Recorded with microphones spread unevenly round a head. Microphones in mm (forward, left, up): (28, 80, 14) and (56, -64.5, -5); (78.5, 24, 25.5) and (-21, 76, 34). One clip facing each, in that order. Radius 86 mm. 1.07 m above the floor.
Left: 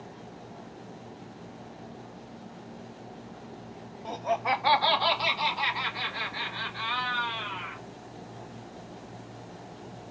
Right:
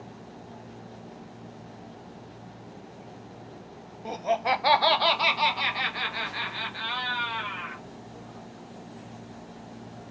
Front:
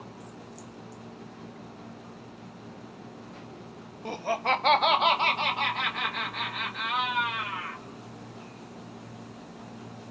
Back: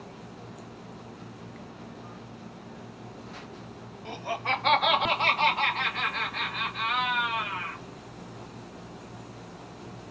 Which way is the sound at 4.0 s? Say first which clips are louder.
Right 2 dB, front 4 dB; 10° right.